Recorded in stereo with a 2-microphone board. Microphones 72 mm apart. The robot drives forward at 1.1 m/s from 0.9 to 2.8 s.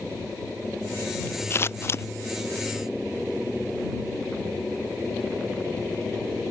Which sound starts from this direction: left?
Scissors, at 1.5 s.